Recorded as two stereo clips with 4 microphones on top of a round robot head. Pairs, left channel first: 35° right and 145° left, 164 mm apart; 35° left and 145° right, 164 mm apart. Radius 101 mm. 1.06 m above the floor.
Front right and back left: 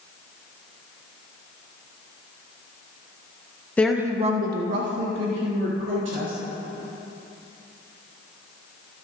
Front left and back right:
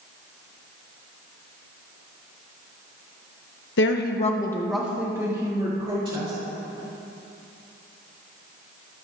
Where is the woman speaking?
45° left, 1.0 m; by 6.3 s 155° left, 3.5 m.